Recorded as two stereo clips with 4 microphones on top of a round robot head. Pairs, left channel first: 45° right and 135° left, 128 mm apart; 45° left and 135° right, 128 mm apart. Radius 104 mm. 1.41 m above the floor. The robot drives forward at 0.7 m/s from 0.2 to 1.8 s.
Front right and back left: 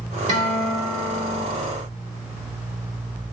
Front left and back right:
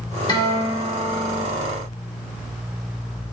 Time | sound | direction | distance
0.3 | a guitar | 105° left | 1.4 m